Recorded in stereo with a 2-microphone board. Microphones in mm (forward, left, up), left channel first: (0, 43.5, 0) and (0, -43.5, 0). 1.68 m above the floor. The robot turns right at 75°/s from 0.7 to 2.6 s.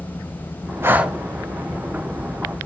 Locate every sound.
0.8 s breathing: 30° right (ahead or behind), 0.7 m; by 1.2 s centre (ahead or behind), 0.7 m